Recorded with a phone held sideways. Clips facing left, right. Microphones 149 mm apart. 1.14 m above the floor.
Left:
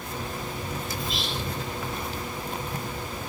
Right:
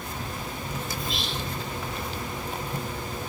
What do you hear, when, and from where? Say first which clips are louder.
1.0 s whispering: left 1 dB; centre (ahead or behind), 4 m